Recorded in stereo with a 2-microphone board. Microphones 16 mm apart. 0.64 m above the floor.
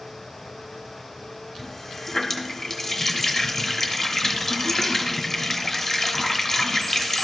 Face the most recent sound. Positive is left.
turn(degrees=10)  # may be behind; listen again after turning